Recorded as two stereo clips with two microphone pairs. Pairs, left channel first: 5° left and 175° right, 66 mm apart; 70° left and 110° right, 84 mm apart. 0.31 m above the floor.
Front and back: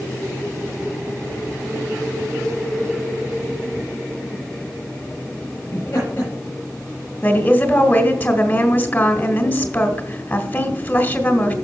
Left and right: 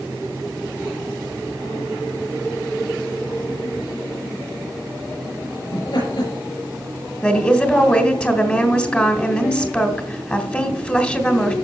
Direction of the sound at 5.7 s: 65° left.